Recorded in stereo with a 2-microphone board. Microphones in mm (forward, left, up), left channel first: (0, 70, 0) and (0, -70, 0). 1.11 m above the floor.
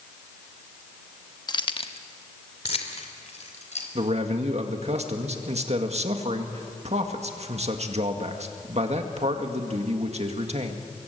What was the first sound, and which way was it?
Keys jangling, 30° left (ahead or behind).